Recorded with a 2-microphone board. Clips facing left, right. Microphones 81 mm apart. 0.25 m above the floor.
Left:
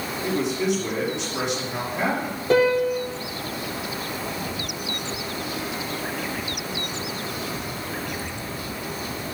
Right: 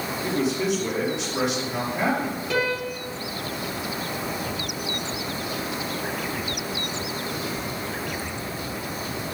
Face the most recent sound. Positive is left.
turn(degrees=40)  # may be behind; listen again after turning